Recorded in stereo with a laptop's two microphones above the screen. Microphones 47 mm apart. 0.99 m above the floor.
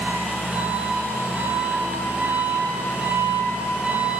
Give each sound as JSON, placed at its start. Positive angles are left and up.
{"t": 0.0, "sound": "an engine running", "side_deg": -30, "distance_m": 1.1}